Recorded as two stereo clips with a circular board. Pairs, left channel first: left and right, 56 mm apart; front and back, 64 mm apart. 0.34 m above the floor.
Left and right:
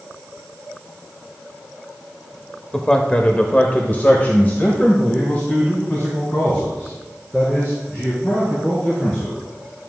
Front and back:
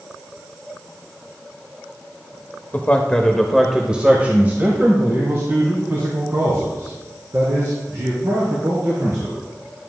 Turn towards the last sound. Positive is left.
turn(degrees=150)